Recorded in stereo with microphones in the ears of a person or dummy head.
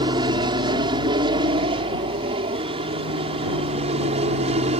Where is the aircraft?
25° right (ahead or behind); by 4.8 s 35° right (ahead or behind).